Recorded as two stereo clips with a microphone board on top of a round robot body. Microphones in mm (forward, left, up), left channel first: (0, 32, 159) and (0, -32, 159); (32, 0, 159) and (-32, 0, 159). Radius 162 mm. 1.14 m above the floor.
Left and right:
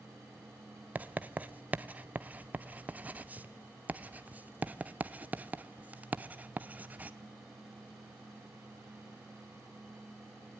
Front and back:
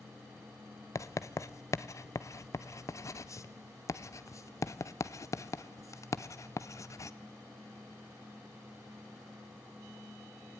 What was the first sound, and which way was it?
Writing, 30° right.